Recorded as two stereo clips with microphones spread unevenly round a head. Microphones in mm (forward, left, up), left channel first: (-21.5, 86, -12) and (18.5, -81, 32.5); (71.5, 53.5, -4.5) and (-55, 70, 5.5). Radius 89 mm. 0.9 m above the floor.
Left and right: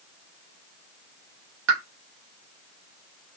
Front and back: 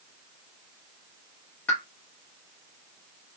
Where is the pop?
85° right, 0.9 m.